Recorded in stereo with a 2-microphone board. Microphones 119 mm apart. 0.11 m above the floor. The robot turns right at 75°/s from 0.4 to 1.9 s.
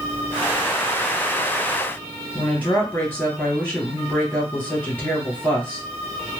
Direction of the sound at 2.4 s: 15° left (ahead or behind).